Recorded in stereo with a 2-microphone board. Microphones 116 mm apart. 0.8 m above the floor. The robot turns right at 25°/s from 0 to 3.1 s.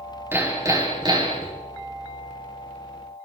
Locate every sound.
0.3 s hammering: 160° right, 5.5 m; by 1.5 s 130° right, 5.5 m